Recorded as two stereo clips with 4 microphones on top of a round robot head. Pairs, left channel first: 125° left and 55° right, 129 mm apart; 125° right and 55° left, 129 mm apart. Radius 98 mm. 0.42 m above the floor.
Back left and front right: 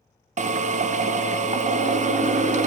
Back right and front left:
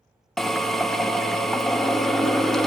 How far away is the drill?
About 0.5 m.